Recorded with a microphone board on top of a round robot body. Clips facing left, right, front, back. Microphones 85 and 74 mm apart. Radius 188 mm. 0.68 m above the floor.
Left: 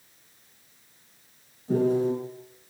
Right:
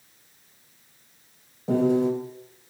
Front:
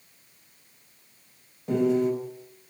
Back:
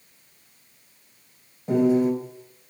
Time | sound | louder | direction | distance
1.7 | a piano | right 2 dB, back 3 dB | 100° right | 4 m